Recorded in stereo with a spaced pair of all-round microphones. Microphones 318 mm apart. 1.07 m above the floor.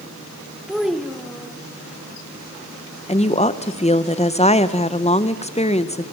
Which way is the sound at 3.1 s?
20° left (ahead or behind).